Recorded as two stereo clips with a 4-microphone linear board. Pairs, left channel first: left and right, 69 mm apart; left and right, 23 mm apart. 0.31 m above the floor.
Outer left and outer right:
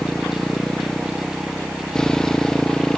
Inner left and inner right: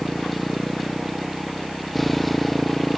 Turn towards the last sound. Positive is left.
turn(degrees=10)  # may be behind; listen again after turning